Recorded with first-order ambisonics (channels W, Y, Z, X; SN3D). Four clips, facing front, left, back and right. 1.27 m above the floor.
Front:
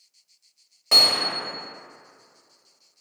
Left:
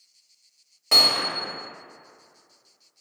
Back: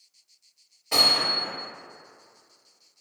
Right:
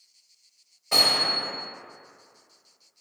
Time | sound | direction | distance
0.9 | hammering | 45° left | 1.5 m